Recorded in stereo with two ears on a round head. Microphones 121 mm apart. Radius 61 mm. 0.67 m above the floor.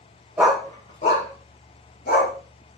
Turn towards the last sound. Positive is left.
turn(degrees=80)